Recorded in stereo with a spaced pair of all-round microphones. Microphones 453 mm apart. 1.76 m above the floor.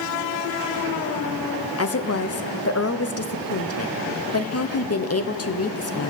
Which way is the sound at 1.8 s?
35° left (ahead or behind).